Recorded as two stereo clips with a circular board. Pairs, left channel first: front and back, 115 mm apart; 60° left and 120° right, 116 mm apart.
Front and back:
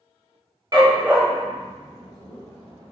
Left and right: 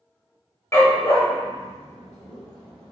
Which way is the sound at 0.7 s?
125° left.